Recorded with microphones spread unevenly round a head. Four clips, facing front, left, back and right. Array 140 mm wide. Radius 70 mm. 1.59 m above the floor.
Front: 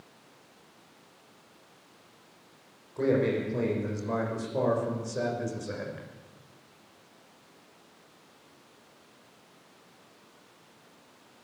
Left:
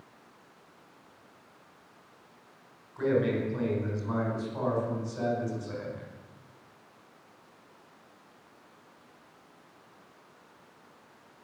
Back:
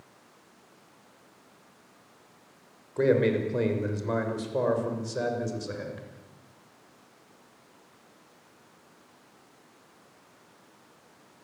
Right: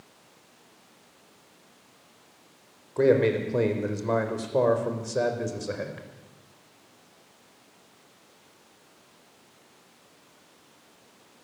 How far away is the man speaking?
About 5.5 m.